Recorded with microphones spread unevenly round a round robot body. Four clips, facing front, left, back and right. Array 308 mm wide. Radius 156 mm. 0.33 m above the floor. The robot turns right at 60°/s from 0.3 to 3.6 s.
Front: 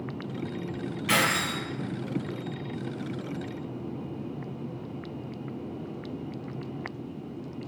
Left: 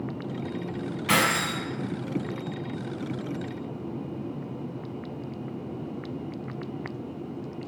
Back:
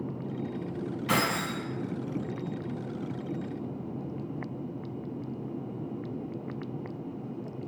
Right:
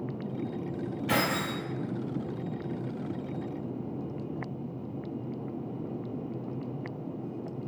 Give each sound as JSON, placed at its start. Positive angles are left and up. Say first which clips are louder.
{"t": 1.1, "sound": "keys jangling", "louder": "left 4 dB, front 2 dB", "azimuth_deg": 120, "distance_m": 1.7}